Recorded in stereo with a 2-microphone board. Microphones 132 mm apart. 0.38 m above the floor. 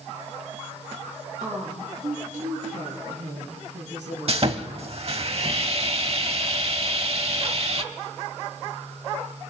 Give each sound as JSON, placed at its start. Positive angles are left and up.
{"t": 1.4, "sound": "a woman speaking", "side_deg": -80, "distance_m": 6.5}
{"t": 4.3, "sound": "sawing", "side_deg": -50, "distance_m": 0.7}